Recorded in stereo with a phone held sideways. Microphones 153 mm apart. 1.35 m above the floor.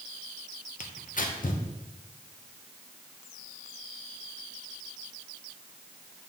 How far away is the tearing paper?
About 0.8 m.